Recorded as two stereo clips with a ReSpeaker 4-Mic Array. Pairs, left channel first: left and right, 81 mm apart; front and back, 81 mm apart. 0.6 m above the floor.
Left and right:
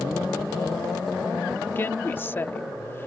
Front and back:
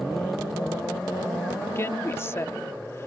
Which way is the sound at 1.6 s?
40° left.